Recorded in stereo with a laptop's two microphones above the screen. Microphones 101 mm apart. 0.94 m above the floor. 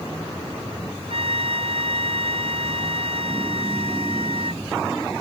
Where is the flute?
60° right (ahead or behind).